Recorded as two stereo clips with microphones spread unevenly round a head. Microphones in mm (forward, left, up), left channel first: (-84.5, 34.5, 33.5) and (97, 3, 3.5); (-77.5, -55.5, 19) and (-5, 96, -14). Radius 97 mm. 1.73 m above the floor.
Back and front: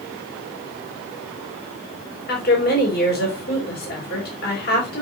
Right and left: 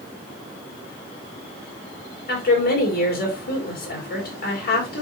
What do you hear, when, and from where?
2.3 s a woman speaking: 145° right, 3.5 m